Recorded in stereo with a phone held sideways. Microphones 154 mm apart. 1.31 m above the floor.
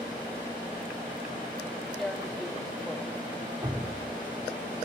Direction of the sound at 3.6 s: 25° right (ahead or behind).